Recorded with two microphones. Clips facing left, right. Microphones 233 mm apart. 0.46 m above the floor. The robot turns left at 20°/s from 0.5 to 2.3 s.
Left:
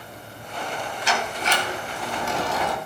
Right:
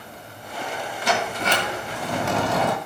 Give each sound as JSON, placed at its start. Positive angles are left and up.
{"t": 1.1, "sound": "a sliding door", "side_deg": -60, "distance_m": 2.0}